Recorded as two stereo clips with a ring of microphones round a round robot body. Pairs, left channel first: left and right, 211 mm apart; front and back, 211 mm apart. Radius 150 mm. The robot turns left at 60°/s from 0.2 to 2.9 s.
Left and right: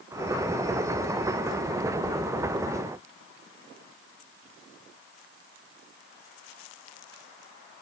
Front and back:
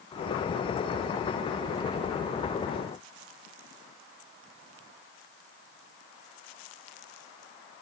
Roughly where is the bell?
No bell in this recording.